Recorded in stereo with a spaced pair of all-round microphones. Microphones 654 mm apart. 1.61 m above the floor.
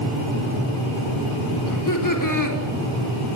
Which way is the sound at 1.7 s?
30° left (ahead or behind).